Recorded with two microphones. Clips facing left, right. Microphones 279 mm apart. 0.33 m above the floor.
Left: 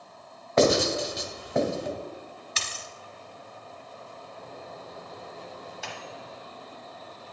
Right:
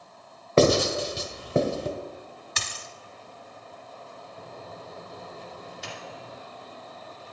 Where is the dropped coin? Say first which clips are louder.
Even; 55° right (ahead or behind), 0.7 m.